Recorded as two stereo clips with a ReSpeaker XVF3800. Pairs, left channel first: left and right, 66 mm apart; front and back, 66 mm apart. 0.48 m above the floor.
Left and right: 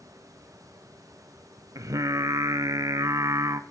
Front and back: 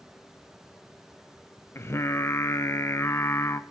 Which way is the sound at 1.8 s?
50° right.